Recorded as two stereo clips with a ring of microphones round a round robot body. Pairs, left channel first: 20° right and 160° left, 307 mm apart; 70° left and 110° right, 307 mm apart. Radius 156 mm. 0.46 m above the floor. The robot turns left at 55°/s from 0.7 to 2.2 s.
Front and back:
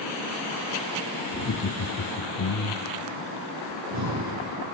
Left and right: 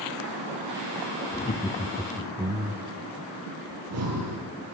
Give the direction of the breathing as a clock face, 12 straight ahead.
5 o'clock.